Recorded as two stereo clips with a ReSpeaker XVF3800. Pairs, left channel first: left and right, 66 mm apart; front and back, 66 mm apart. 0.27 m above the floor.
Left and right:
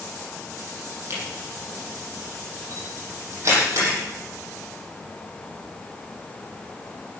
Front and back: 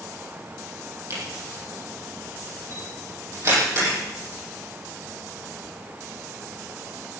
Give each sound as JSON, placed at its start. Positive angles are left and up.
{"t": 1.1, "sound": "a camera shutter", "azimuth_deg": -135, "distance_m": 8.5}